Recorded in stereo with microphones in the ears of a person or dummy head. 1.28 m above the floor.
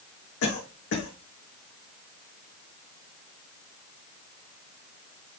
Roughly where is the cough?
Left.